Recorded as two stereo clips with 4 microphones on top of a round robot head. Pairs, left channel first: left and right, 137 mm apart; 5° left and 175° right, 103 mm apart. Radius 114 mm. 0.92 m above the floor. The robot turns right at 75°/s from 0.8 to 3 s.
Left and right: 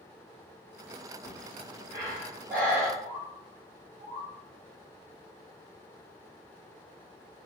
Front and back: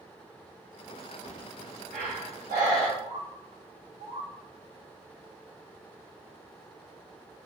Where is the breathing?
140° left, 1.0 m; by 2.9 s 95° right, 1.0 m.